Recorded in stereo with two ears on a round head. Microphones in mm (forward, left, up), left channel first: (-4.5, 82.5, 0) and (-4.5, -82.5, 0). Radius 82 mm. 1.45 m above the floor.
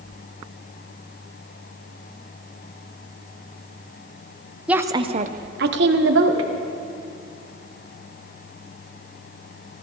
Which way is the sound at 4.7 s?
5° right (ahead or behind).